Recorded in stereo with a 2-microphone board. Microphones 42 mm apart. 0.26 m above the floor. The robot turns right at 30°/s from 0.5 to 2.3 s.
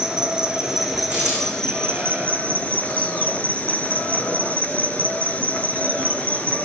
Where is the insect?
20° right, 2.5 m; by 6.7 s 35° left, 2.5 m.